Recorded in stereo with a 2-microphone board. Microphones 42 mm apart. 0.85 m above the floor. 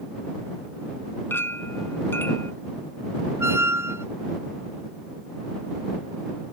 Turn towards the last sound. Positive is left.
turn(degrees=-85)